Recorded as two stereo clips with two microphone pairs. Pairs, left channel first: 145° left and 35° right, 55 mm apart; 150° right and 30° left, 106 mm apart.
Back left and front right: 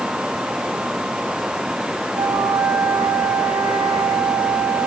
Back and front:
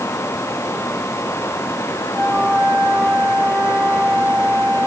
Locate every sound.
2.1 s a flute: 50° right, 3 m